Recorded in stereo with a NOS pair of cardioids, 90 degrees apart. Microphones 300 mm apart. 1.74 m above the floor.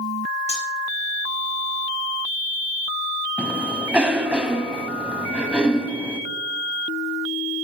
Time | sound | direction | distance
0.5 | cutlery clinking | 20° left | 5 m
3.4 | a cough | 5° right | 3 m